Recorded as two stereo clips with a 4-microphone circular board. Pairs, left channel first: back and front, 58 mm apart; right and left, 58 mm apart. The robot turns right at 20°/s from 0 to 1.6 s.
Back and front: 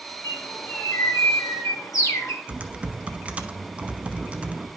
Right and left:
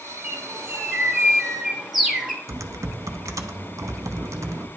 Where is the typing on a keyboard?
65° left, 0.6 m.